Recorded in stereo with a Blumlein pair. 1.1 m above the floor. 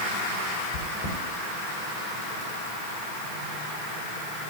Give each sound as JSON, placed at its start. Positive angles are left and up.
{"t": 0.7, "sound": "chewing", "azimuth_deg": 45, "distance_m": 10.0}